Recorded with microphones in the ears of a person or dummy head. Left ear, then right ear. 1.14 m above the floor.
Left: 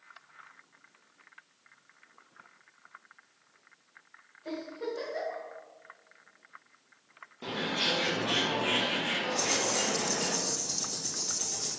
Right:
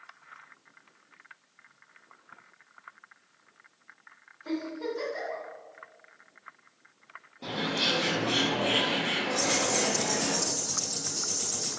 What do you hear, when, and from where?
4.5 s a giggle: 25° left (ahead or behind), 1.5 m
7.4 s a bird: 35° left (ahead or behind), 0.7 m
9.4 s ticking: 15° left (ahead or behind), 2.0 m